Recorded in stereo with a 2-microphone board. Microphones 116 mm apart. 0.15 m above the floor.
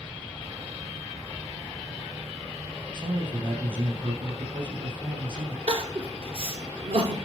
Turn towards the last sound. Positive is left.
turn(degrees=-55)  # may be behind; listen again after turning